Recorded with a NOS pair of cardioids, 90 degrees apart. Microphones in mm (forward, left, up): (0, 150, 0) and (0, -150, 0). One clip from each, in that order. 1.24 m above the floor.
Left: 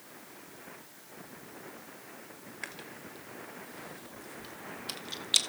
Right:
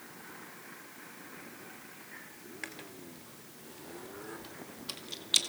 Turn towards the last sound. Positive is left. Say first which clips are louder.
# left 2 dB
turn(degrees=10)